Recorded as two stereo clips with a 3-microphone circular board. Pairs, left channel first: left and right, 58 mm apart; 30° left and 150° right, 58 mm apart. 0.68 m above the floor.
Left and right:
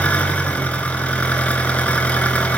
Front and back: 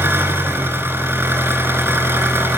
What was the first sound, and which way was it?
An engine running, 160° left.